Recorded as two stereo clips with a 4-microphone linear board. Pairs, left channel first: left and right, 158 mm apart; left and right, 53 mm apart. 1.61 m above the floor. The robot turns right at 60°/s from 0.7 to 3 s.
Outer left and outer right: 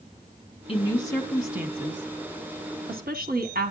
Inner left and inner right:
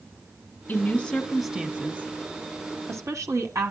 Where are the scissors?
I don't hear scissors.